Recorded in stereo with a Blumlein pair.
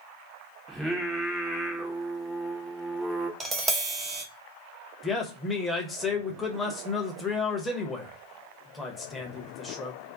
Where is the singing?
5° right, 0.7 m.